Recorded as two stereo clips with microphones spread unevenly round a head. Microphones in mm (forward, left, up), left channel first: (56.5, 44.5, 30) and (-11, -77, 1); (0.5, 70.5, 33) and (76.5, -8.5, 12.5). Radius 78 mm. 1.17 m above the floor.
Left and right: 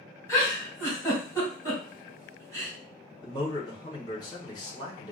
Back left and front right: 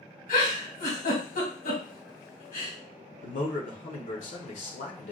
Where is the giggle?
140° left, 2.5 m.